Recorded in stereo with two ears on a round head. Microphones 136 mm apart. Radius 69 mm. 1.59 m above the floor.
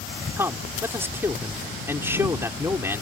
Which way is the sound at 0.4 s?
15° right (ahead or behind).